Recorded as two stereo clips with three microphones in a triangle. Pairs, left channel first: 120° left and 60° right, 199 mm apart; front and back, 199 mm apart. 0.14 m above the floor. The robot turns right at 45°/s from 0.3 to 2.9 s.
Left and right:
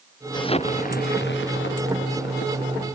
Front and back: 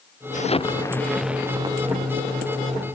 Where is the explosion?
50° left; by 3.0 s 165° left.